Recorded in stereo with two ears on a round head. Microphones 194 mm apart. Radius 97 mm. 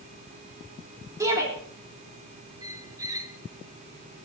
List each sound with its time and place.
1.2 s a shout: 15° right (ahead or behind), 3 m
2.6 s a squeak: 15° right (ahead or behind), 1.1 m